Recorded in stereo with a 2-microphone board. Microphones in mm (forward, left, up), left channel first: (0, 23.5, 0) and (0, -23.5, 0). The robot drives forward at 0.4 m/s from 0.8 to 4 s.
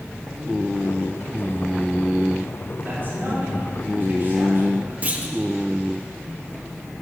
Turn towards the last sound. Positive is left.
turn(degrees=-30)  # may be behind; listen again after turning